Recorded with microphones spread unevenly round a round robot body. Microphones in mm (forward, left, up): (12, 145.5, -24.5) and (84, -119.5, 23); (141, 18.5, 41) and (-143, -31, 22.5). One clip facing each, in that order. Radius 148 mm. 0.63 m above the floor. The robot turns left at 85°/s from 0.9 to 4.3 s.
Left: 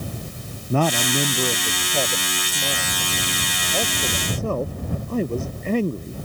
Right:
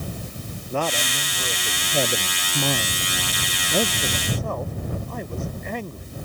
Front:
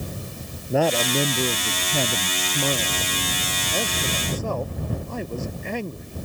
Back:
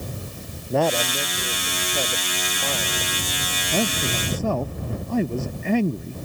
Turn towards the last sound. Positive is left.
turn(degrees=170)